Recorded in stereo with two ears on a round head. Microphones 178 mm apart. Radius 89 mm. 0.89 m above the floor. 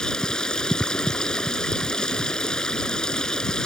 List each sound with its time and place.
0.0 s running water: 5° left (ahead or behind)